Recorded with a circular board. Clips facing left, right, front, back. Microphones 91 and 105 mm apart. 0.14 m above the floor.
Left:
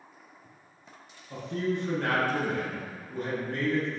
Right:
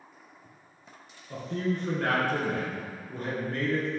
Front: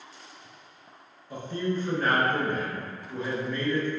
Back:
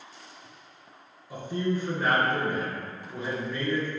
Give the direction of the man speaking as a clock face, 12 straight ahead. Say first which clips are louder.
Even, back 1 dB; 3 o'clock.